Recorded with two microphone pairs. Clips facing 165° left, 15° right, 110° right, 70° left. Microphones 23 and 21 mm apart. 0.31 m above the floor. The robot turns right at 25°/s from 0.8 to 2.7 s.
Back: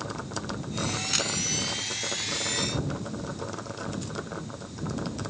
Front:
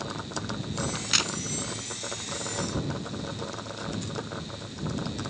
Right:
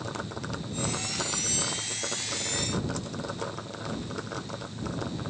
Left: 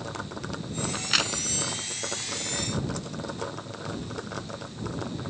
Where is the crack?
50° left; by 1.3 s 60° left.